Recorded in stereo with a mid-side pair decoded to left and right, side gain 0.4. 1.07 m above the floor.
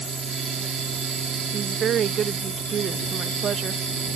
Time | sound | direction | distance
0.0 | a fan | 70° right | ?
1.5 | a woman speaking | 65° right | ?